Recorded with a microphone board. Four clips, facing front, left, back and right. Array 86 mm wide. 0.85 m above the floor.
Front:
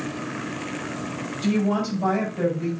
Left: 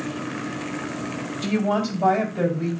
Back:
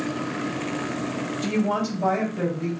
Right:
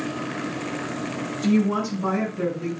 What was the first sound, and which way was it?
A woman speaking, 95° left.